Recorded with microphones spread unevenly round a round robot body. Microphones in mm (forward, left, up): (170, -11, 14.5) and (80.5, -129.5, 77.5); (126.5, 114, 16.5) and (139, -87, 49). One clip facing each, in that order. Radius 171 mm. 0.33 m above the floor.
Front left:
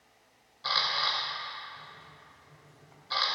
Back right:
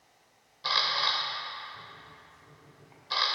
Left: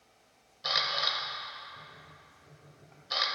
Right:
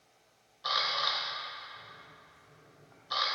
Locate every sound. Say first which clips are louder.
0.6 s a camera shutter: back right 1 dB, left 1 dB; 145° left, 0.5 m